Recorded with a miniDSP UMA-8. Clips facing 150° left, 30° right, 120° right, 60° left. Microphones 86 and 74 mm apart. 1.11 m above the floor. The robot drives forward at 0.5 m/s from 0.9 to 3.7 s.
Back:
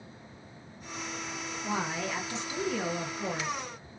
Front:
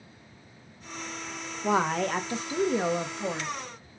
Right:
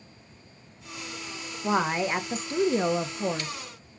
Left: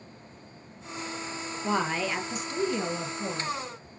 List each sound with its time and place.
1.6 s a woman speaking: 45° right, 0.9 m; by 3.5 s 115° right, 0.8 m